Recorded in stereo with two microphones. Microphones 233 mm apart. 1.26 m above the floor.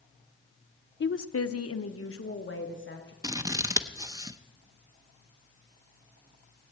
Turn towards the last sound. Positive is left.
turn(degrees=-15)  # may be behind; listen again after turning